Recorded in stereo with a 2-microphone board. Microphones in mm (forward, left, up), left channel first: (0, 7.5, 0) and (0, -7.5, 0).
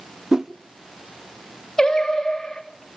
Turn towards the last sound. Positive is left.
turn(degrees=75)  # may be behind; listen again after turning